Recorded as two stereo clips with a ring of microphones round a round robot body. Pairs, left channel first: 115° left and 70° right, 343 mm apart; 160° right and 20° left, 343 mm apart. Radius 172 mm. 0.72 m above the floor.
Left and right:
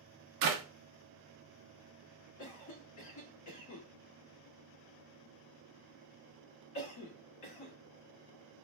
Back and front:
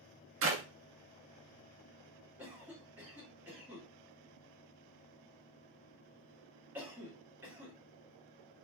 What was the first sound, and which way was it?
A clap, 30° right.